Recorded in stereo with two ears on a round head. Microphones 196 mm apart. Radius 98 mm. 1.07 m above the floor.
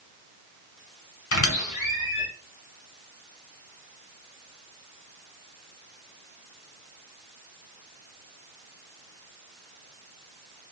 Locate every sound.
1.3 s a squeak: 65° left (ahead or behind), 1.5 m